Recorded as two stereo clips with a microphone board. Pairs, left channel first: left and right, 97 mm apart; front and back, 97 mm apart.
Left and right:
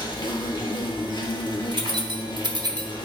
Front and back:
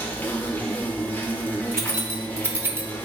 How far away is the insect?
About 1.2 m.